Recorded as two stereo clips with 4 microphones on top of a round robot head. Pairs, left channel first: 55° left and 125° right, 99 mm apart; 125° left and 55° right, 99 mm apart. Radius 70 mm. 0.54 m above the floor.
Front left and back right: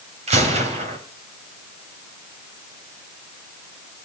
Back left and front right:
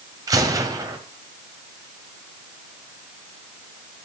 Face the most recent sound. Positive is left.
turn(degrees=-110)